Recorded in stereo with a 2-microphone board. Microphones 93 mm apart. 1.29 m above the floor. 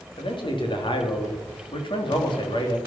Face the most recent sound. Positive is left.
turn(degrees=60)  # may be behind; listen again after turning